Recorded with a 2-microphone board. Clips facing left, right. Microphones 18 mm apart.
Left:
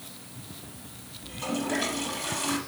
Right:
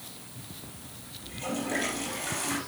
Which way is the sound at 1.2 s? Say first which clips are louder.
Left 2 dB; 10° left (ahead or behind).